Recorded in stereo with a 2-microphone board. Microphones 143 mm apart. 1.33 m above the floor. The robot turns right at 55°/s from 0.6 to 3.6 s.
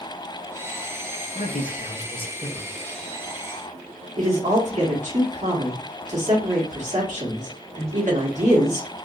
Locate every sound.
1.4 s a man speaking: 95° left, 0.8 m; by 2.8 s 175° left, 0.8 m
4.2 s a man speaking: 55° right (ahead or behind), 1.7 m